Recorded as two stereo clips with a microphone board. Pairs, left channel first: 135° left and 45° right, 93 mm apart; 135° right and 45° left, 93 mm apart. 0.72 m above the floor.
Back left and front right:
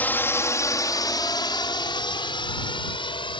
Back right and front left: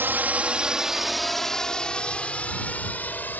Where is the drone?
85° left; by 3.4 s 155° left.